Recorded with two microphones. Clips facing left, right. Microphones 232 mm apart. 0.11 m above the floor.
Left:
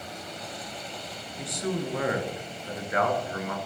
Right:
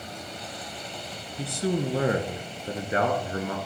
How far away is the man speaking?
About 1.4 m.